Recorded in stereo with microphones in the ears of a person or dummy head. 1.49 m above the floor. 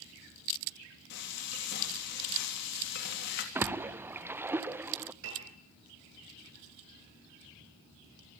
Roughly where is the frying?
Left.